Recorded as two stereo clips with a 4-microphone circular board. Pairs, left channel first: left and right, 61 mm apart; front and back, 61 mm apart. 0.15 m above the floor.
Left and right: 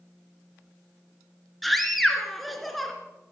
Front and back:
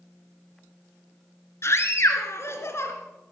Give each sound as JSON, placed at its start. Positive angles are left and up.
{"t": 1.6, "sound": "a scream", "azimuth_deg": 0, "distance_m": 2.5}